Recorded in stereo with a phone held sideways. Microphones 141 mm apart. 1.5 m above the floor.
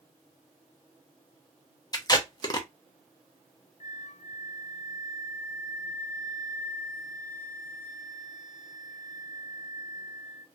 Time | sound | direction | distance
1.9 | tape being pulled | 30° left (ahead or behind) | 0.6 m
3.8 | a flute | 55° left (ahead or behind) | 0.6 m